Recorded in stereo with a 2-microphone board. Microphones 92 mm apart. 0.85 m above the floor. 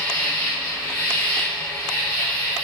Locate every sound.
0.0 s an insect: 15° left (ahead or behind), 1.2 m